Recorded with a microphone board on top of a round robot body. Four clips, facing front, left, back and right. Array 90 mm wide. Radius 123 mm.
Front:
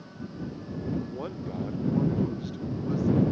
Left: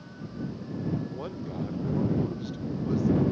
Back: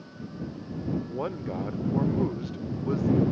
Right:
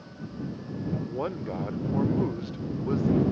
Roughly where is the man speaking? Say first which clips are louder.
Right 5 dB, back 3 dB; behind right.